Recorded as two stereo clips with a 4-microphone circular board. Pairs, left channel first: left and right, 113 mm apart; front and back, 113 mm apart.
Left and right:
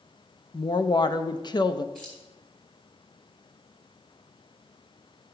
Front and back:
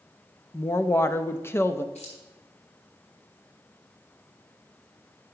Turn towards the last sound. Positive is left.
turn(degrees=5)